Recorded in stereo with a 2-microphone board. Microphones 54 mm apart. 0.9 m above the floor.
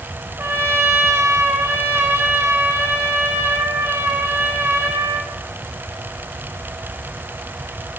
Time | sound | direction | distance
0.4 | a trumpet | 50° right (ahead or behind) | 1.1 m